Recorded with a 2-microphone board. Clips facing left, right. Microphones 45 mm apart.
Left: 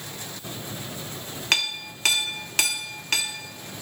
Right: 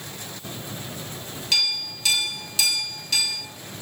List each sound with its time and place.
1.5 s a clink: 55° left (ahead or behind), 1.1 m